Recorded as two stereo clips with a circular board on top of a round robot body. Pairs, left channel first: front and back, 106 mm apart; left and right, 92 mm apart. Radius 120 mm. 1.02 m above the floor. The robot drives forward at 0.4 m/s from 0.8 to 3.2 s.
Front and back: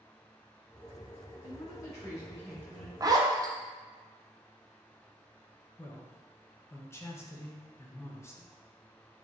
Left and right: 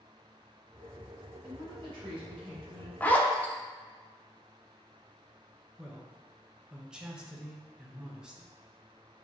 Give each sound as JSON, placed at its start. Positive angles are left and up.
{"t": 1.4, "sound": "a woman speaking", "azimuth_deg": -55, "distance_m": 1.7}
{"t": 3.0, "sound": "a zipper", "azimuth_deg": 150, "distance_m": 0.7}
{"t": 5.8, "sound": "a man speaking", "azimuth_deg": -20, "distance_m": 0.8}